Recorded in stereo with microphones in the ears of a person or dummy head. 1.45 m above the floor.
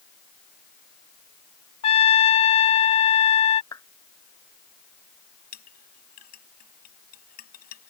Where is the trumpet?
40° left (ahead or behind).